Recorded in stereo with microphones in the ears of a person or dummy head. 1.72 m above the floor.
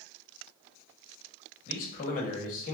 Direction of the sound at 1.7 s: 45° left (ahead or behind).